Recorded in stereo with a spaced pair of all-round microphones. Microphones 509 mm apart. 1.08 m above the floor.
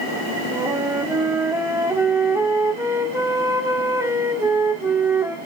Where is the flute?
5° right (ahead or behind), 1.1 m.